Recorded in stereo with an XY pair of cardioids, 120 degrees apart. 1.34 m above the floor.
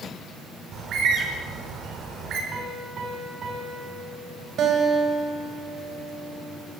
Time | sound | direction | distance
0.7 | a bird | 60° right | 5.5 m
2.5 | a piano | 50° right | 7.5 m
4.6 | a guitar | 60° right | 7.5 m